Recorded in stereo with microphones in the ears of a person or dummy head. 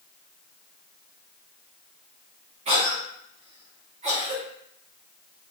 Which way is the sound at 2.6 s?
35° right (ahead or behind).